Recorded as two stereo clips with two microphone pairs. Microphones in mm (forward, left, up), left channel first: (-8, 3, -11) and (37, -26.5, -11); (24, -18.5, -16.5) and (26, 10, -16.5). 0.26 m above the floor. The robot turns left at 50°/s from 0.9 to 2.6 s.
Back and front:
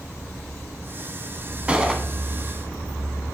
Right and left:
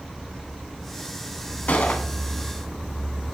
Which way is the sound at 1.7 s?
95° right.